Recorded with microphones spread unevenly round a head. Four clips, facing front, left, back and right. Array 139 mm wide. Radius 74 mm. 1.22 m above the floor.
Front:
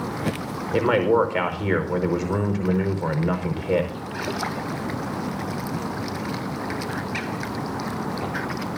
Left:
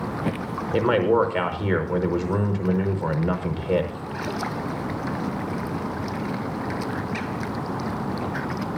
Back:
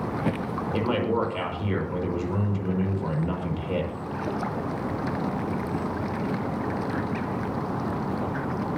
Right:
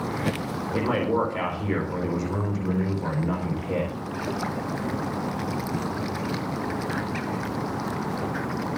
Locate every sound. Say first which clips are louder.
0.7 s a man speaking: left 5 dB, front 7 dB; 35° left, 5.5 m